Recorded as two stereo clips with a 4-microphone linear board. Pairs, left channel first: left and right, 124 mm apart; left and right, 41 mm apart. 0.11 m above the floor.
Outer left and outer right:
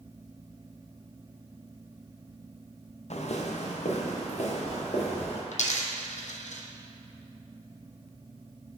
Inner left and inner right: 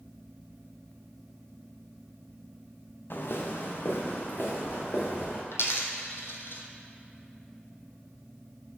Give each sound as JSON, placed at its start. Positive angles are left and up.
{"t": 3.1, "sound": "footsteps", "side_deg": 60, "distance_m": 1.0}
{"t": 5.5, "sound": "a dropped coin", "side_deg": 75, "distance_m": 0.9}